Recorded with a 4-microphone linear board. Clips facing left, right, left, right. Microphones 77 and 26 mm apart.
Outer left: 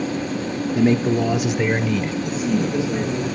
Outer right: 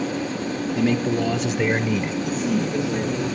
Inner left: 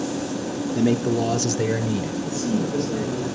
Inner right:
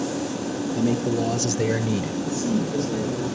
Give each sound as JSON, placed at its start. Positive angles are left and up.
{"t": 0.8, "sound": "a man speaking", "side_deg": 30, "distance_m": 1.2}
{"t": 2.2, "sound": "a man speaking", "side_deg": 10, "distance_m": 5.0}